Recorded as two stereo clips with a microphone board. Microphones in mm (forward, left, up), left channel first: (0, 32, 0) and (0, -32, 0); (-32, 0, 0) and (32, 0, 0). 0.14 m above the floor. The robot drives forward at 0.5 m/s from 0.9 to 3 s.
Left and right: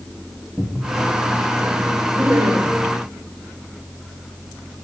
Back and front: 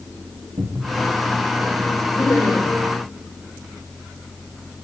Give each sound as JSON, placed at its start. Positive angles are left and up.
{"t": 0.6, "sound": "a cupboard door", "azimuth_deg": 0, "distance_m": 4.5}
{"t": 2.1, "sound": "laughter", "azimuth_deg": -130, "distance_m": 7.5}